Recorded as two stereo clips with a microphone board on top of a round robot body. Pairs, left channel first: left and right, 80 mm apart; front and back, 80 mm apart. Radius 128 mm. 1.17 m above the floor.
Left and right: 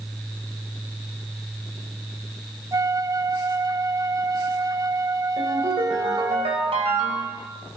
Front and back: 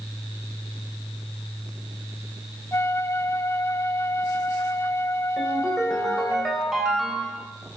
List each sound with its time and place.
2.7 s a flute: 50° right, 0.7 m
5.4 s a ringtone: 95° right, 2.5 m